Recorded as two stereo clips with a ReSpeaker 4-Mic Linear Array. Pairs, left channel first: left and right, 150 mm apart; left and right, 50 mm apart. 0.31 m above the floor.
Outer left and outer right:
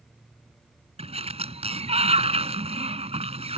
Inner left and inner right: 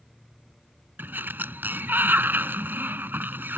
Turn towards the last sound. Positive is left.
turn(degrees=-45)  # may be behind; listen again after turning